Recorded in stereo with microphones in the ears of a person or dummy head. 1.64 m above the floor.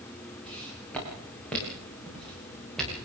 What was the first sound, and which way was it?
Footsteps, 10° left (ahead or behind).